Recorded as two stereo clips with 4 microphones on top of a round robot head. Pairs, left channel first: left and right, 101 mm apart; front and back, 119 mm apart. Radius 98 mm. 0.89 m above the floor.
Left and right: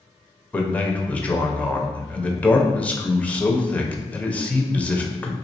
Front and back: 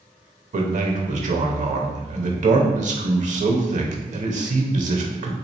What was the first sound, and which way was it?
A man speaking, 165° left.